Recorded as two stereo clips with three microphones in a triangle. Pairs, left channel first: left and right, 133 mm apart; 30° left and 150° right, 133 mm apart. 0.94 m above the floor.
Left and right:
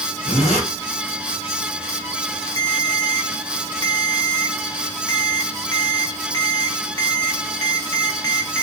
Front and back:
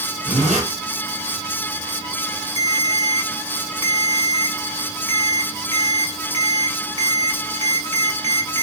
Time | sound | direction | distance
0.2 | a zipper | 125° right | 1.8 m
2.6 | a ringtone | 155° left | 1.0 m